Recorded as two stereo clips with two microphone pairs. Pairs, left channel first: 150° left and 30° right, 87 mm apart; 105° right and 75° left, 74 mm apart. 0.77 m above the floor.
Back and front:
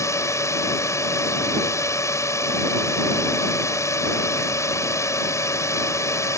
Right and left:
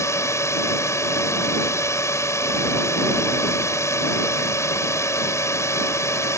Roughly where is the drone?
Behind right.